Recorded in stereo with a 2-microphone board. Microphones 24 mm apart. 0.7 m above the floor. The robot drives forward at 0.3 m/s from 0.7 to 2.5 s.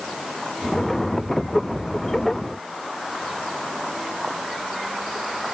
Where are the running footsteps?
I don't hear running footsteps.